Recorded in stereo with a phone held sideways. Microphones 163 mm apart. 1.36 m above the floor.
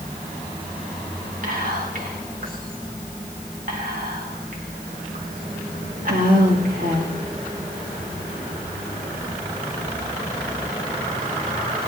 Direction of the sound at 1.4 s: 60° right (ahead or behind).